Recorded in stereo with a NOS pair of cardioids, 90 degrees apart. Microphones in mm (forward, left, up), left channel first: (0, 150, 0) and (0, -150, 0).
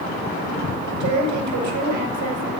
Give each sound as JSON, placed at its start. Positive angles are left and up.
{"t": 1.0, "sound": "a woman speaking", "azimuth_deg": -70, "distance_m": 8.0}